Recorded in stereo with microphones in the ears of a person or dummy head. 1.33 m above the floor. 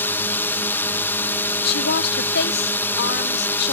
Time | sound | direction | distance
0.0 | a drone | 10° left (ahead or behind) | ?
1.6 | a woman speaking | 55° left (ahead or behind) | ?